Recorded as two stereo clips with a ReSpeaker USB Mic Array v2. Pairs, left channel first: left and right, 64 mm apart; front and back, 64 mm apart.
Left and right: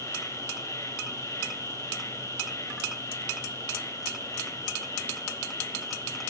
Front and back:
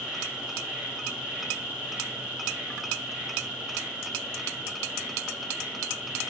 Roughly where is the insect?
Left.